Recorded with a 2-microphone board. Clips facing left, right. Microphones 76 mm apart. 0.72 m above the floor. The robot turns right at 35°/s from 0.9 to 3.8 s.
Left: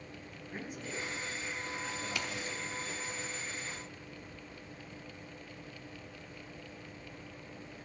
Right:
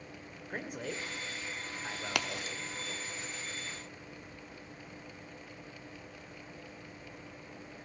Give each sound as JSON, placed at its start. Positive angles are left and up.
{"t": 0.5, "sound": "a man speaking", "side_deg": -70, "distance_m": 2.0}
{"t": 2.1, "sound": "a crack", "side_deg": -75, "distance_m": 0.9}